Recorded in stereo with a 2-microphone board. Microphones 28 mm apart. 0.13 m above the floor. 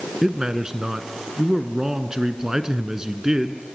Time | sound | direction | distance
0.2 | a man speaking | 25° right (ahead or behind) | 1.5 m